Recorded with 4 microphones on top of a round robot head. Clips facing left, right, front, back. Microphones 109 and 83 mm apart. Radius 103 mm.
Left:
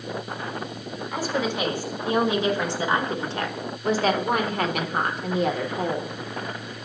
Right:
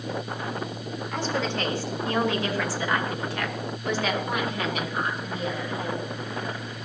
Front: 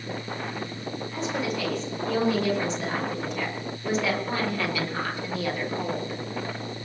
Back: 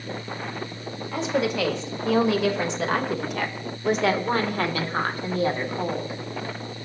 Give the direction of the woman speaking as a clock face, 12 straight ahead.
6 o'clock.